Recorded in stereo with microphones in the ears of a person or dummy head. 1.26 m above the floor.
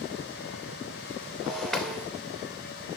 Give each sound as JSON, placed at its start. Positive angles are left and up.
{"t": 1.4, "sound": "breaking glass", "side_deg": 0, "distance_m": 2.5}